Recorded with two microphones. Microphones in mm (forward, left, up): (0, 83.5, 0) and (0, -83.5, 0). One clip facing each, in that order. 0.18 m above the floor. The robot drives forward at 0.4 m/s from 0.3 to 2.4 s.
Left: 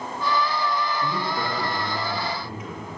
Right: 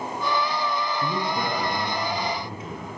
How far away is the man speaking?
About 1.3 m.